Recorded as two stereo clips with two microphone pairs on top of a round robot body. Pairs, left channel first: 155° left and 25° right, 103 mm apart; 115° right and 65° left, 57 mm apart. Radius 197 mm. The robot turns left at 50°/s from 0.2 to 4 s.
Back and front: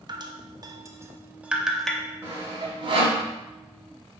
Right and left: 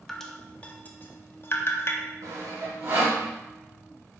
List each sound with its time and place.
0.1 s dripping: 30° right, 0.7 m; by 2.0 s 125° right, 0.7 m
2.2 s sawing: 50° left, 0.6 m; by 3.2 s straight ahead, 0.6 m